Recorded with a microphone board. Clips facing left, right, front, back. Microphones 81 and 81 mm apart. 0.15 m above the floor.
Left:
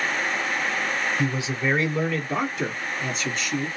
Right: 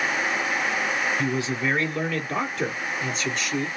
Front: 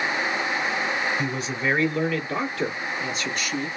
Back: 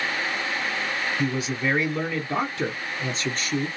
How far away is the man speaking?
About 1.5 m.